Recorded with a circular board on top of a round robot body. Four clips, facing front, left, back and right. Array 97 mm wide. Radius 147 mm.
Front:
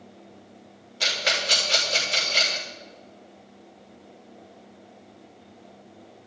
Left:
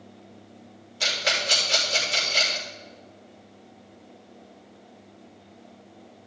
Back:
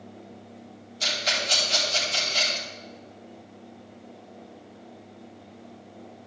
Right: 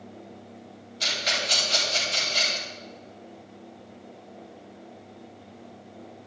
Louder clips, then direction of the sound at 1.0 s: Left 2 dB, front 2 dB; 10° left.